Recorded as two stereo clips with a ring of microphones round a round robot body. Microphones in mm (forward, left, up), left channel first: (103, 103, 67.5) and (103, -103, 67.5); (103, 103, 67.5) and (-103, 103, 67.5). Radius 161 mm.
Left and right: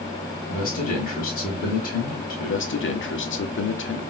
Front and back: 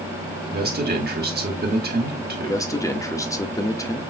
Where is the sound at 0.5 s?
140° left, 1.9 m.